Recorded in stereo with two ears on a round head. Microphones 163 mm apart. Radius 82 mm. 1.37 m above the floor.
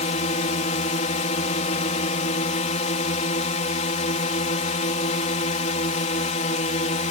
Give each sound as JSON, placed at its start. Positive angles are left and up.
{"t": 0.0, "sound": "a drone", "side_deg": 40}